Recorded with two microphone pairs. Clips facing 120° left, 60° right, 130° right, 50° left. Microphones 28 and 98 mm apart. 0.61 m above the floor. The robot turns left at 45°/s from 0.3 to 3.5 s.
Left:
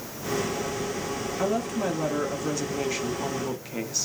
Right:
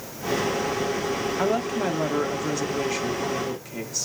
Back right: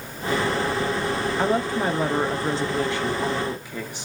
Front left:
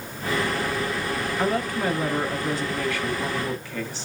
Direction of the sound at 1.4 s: 90° right.